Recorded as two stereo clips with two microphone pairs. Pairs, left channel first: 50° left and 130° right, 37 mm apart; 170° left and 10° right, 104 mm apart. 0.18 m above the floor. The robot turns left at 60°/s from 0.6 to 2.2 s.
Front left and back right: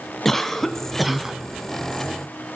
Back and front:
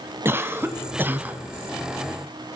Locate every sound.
0.2 s a cough: 15° right, 1.3 m; by 1.4 s 65° right, 1.3 m